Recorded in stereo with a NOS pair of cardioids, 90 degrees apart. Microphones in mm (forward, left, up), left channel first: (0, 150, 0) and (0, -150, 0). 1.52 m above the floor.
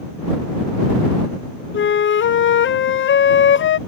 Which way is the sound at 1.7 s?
40° left.